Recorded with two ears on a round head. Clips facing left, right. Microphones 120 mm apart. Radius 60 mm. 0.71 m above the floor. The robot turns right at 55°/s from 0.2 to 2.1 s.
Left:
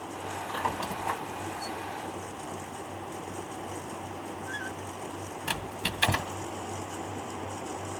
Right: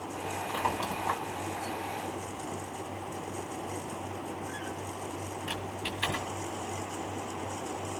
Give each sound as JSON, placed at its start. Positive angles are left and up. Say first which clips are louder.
{"t": 0.5, "sound": "a squeak", "louder": "even", "side_deg": -10, "distance_m": 1.7}